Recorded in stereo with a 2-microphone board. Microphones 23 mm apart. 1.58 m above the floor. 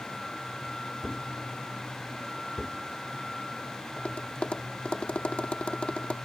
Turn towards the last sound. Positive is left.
turn(degrees=65)  # may be behind; listen again after turning